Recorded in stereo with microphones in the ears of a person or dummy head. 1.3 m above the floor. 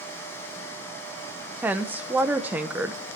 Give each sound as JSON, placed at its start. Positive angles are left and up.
{"t": 1.6, "sound": "a woman speaking", "side_deg": -10, "distance_m": 0.7}